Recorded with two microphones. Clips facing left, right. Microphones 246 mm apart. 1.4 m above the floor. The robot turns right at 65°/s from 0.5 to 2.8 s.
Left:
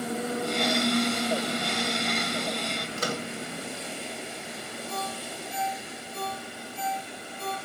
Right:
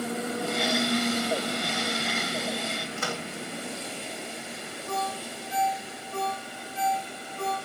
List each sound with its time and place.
3.0 s a microwave: 40° left (ahead or behind), 2 m
4.9 s a ringtone: 75° right (ahead or behind), 7 m